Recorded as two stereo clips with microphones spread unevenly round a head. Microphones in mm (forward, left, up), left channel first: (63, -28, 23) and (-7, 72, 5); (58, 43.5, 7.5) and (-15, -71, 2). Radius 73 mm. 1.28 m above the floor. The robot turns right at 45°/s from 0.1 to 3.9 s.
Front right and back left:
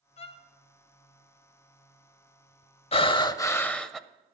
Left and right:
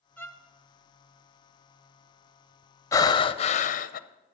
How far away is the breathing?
About 0.5 m.